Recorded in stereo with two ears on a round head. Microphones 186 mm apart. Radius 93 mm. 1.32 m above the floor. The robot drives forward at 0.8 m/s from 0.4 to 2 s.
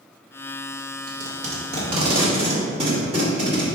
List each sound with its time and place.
1.1 s tape being pulled: 40° right (ahead or behind), 1.5 m; by 3.6 s 30° right (ahead or behind), 2 m